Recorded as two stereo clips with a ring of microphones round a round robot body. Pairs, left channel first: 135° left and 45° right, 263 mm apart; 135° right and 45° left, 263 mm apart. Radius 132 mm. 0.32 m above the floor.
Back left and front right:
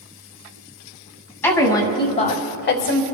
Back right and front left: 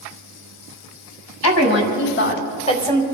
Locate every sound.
1.4 s a woman speaking: 145° right, 2.5 m; by 3.0 s 135° left, 1.6 m